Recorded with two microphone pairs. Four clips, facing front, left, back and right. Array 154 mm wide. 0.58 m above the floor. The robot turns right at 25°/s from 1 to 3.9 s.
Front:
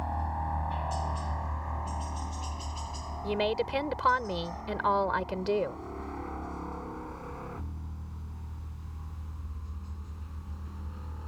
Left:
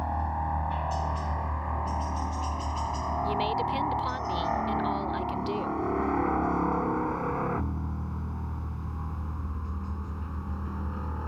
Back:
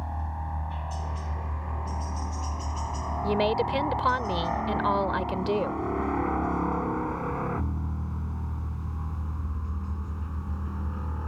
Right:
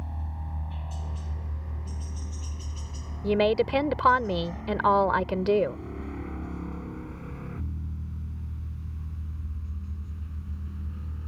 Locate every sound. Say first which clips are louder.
0.0 s a helicopter: left 12 dB, front 3 dB; 70° left; by 11.3 s 120° left
3.2 s a woman speaking: right 7 dB, back 4 dB; 110° right; by 5.8 s 95° right